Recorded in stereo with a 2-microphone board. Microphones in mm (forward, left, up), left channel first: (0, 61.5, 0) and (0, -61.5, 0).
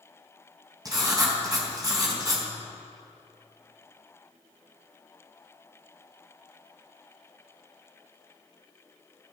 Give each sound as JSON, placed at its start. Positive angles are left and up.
{"t": 0.8, "sound": "writing", "side_deg": -30, "distance_m": 4.0}